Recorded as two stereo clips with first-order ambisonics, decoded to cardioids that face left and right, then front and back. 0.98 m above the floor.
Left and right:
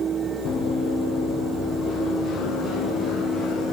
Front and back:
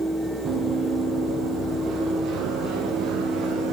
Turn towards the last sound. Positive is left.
turn(degrees=145)